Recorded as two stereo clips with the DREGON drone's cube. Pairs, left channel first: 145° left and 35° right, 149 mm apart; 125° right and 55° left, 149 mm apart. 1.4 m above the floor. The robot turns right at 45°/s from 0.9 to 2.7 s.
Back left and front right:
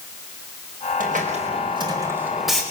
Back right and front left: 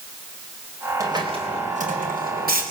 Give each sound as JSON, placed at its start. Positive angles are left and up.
{"t": 1.0, "sound": "a hiss", "azimuth_deg": -15, "distance_m": 4.0}